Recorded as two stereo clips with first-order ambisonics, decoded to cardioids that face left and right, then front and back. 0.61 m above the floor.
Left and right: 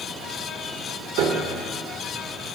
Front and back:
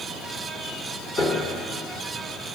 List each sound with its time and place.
1.2 s a piano: 75° right, 1.2 m